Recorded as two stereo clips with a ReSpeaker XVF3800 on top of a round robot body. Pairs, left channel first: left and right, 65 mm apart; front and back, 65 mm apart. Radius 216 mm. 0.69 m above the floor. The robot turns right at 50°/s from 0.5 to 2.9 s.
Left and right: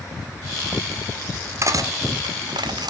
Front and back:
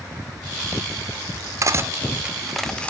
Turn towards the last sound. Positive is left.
turn(degrees=-70)